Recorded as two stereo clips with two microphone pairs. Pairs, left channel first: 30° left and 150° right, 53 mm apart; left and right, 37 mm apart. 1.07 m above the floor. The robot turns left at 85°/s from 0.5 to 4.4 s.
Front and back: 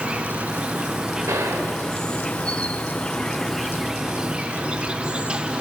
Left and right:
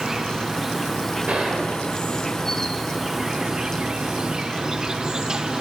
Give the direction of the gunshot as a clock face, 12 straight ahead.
5 o'clock.